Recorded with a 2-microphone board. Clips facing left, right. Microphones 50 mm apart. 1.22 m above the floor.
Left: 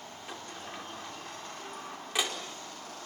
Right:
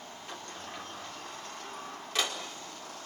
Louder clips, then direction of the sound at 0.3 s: Even; 10° left (ahead or behind).